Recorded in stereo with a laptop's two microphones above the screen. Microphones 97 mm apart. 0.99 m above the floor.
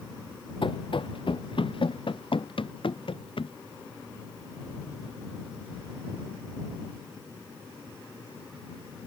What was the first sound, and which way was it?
Running footsteps, 60° left (ahead or behind).